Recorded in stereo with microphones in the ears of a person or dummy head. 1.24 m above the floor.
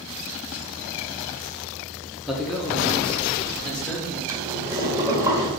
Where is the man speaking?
5° right (ahead or behind), 1.1 m; by 4.2 s 5° left (ahead or behind), 2.5 m.